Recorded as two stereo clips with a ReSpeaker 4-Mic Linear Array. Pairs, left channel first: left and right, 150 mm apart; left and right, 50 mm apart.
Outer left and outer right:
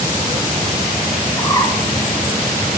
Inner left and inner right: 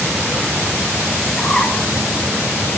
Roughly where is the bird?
Left.